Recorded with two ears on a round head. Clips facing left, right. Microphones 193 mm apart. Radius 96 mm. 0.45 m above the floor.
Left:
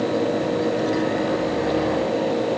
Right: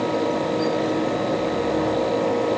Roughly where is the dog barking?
I don't hear a dog barking.